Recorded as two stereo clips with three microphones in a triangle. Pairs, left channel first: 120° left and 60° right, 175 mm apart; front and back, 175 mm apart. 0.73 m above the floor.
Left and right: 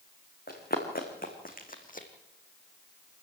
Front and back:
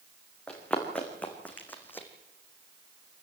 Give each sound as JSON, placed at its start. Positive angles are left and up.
{"t": 0.5, "sound": "running footsteps", "azimuth_deg": 85, "distance_m": 4.5}